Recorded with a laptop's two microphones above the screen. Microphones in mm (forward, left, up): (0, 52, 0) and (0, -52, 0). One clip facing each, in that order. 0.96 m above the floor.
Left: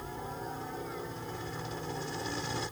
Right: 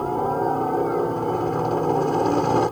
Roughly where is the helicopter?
Right.